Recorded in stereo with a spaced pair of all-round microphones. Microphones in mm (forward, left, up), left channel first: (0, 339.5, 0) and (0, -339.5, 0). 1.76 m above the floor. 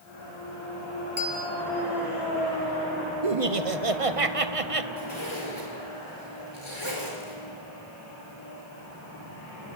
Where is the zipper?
45° left (ahead or behind), 5 m.